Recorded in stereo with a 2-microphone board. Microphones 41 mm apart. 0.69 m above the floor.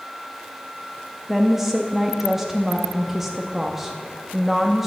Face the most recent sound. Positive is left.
turn(degrees=-10)  # may be behind; listen again after turning